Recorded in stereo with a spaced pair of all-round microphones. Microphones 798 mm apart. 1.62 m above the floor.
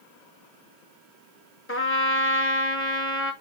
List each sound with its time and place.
1.7 s a trumpet: 15° left (ahead or behind), 1.0 m